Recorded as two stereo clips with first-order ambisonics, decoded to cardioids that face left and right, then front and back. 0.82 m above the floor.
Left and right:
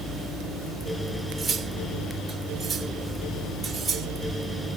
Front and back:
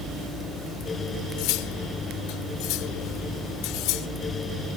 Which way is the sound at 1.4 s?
10° right.